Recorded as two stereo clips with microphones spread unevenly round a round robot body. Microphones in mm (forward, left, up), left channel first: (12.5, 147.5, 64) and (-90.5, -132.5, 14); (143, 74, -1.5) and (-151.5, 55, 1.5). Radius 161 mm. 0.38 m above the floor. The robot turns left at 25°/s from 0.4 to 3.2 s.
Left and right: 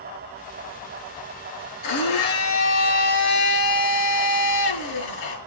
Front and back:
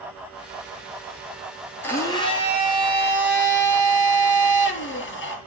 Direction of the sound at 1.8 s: 85° left.